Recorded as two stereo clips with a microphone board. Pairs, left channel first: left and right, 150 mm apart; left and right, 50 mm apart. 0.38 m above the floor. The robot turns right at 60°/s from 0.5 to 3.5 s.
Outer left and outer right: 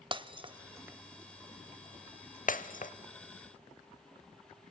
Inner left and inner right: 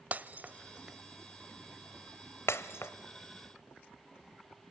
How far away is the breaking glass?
About 0.7 m.